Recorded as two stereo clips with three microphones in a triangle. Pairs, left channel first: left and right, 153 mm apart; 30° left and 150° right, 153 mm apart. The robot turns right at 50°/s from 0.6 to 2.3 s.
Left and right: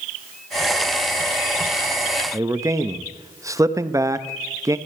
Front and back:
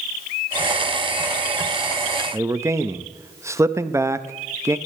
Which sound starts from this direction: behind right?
A man speaking, at 2.3 s.